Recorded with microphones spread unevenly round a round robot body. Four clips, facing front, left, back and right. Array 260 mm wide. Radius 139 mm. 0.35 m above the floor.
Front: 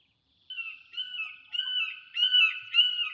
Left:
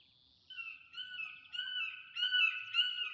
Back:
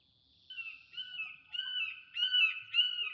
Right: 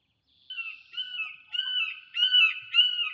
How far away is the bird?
About 0.5 m.